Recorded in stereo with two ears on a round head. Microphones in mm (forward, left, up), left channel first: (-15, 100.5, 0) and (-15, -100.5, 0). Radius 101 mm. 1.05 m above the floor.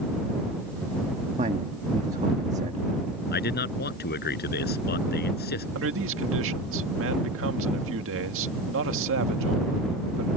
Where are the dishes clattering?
No dishes clattering in this recording.